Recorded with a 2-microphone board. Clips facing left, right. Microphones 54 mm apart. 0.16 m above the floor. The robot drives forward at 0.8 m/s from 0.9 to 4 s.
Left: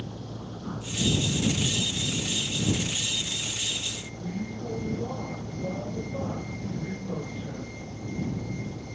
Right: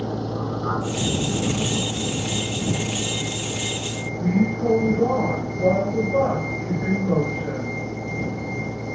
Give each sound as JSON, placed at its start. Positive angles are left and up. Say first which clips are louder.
{"t": 0.0, "sound": "a vehicle", "louder": "right 12 dB", "side_deg": -80}